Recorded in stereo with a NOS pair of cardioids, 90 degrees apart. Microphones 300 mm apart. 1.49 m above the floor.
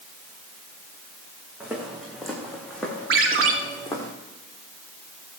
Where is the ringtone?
45° right, 2 m.